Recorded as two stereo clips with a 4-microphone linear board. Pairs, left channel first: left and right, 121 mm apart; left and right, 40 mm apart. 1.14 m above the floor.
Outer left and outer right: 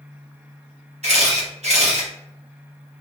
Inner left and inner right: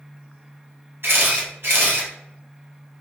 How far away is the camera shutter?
About 0.9 m.